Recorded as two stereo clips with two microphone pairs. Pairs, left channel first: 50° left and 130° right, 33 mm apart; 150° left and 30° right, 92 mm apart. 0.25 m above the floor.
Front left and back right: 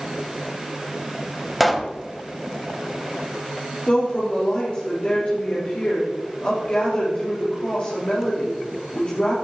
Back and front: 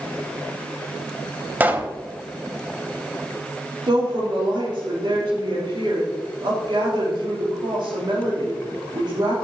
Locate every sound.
1.6 s a pop: 45° right, 1.2 m
3.9 s a woman speaking: straight ahead, 5.5 m